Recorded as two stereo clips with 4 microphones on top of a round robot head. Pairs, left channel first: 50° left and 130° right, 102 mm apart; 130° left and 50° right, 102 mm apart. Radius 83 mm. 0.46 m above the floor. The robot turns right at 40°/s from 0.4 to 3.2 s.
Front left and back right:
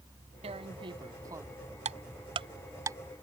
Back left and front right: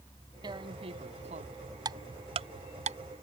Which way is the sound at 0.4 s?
100° right.